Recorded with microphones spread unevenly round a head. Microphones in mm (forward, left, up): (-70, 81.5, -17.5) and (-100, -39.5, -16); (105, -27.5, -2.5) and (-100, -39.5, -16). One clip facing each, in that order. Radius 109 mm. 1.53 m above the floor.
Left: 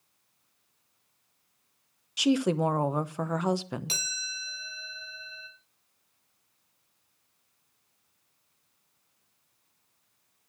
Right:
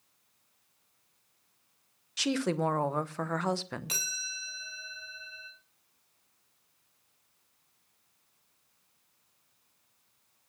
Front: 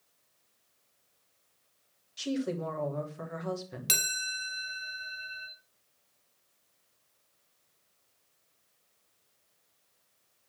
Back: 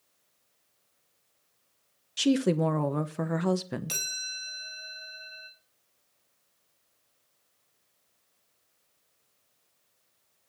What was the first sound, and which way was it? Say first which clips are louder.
A woman speaking: left 5 dB, back 8 dB; 150° left.